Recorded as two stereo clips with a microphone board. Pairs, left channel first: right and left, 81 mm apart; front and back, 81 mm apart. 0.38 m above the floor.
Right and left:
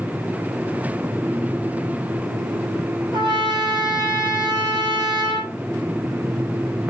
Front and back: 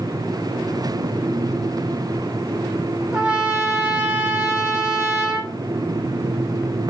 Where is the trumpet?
105° left, 6.5 m.